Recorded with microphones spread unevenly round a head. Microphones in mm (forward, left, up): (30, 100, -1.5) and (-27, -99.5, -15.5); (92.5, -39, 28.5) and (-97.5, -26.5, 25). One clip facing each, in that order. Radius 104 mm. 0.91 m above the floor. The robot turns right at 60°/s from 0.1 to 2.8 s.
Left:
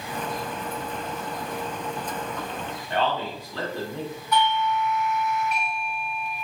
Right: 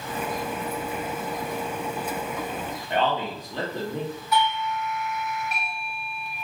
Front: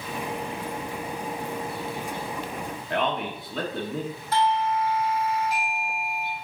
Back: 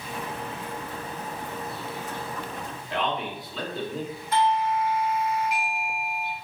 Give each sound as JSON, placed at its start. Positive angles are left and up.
{"t": 2.9, "sound": "a man speaking", "azimuth_deg": -40, "distance_m": 1.2}
{"t": 4.3, "sound": "a doorbell", "azimuth_deg": -30, "distance_m": 1.7}